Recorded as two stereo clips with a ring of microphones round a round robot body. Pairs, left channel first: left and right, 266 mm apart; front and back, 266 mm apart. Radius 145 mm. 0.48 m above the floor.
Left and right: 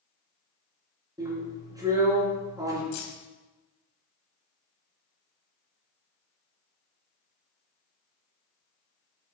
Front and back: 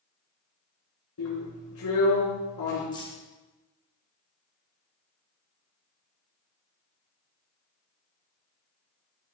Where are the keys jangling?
75° left, 2 m.